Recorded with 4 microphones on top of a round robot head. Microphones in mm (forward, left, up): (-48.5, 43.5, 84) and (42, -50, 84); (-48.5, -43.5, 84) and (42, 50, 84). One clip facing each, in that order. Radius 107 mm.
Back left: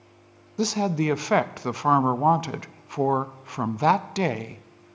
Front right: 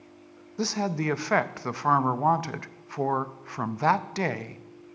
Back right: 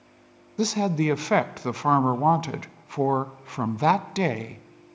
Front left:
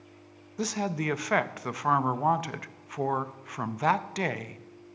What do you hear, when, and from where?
0.6 s a woman speaking: 170° right, 0.6 m